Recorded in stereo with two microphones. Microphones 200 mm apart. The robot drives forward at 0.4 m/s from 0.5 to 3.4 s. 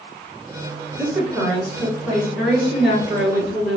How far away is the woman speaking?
About 1.6 m.